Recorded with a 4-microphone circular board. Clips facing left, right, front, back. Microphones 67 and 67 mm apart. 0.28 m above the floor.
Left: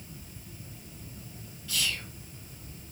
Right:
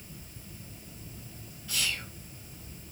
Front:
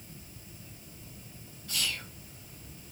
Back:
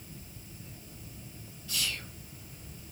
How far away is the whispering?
About 1.8 m.